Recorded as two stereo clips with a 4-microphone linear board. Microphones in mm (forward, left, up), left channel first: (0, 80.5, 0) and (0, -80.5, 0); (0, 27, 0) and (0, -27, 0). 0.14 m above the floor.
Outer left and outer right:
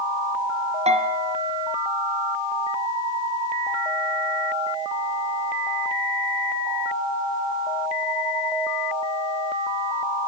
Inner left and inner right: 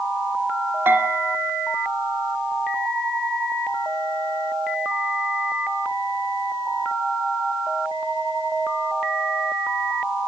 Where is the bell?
40° right (ahead or behind), 2.5 m.